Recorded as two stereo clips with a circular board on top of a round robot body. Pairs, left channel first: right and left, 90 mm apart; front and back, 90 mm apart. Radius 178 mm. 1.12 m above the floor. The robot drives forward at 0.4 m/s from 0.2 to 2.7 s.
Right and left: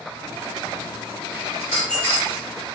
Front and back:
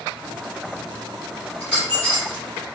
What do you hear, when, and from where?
1.6 s a dropped coin: 105° right, 1.3 m; by 2.4 s 120° right, 1.4 m